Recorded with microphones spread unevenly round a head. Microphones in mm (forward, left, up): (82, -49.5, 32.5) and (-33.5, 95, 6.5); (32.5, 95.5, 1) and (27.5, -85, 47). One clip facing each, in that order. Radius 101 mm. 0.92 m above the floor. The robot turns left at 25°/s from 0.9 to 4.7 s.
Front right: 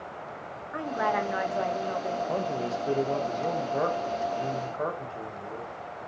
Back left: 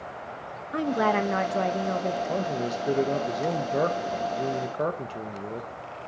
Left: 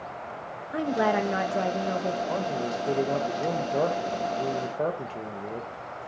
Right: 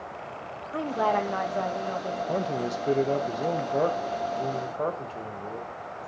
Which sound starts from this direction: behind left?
A woman speaking, at 0.7 s.